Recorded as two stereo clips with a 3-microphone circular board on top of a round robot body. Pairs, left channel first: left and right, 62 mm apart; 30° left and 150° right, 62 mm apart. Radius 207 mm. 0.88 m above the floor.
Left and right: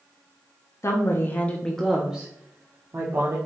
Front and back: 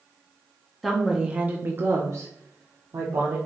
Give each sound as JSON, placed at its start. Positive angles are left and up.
{"t": 0.8, "sound": "a woman speaking", "azimuth_deg": 120, "distance_m": 0.9}